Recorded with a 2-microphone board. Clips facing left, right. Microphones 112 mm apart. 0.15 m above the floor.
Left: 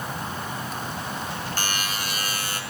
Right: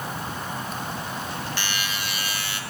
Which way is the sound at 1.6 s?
40° left (ahead or behind).